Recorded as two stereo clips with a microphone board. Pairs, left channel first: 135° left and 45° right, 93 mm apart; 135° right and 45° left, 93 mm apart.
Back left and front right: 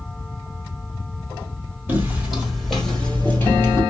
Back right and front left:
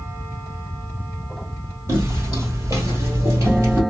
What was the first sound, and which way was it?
Footsteps, 10° left.